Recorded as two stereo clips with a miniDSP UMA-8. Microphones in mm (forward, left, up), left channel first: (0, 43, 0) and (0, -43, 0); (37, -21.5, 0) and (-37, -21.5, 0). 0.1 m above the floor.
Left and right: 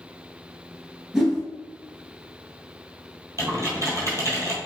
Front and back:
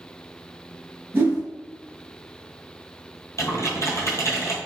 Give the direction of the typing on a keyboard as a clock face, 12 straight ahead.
1 o'clock.